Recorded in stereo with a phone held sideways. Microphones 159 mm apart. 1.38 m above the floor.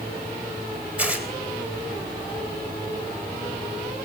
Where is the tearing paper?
10° right (ahead or behind), 3.5 m.